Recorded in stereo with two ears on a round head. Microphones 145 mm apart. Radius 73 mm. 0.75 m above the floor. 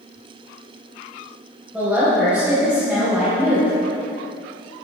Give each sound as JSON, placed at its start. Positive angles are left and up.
{"t": 1.7, "sound": "a woman speaking", "side_deg": -10, "distance_m": 3.0}